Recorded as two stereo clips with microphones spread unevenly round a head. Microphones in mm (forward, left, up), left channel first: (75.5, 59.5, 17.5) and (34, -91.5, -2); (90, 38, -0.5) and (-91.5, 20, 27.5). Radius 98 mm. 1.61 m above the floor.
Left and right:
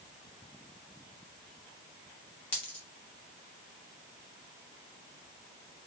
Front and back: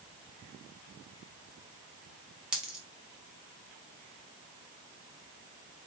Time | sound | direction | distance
2.5 | a dropped coin | 125° left | 1.0 m